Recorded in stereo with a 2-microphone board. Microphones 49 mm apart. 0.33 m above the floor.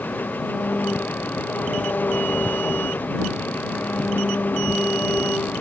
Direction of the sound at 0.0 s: 40° left (ahead or behind).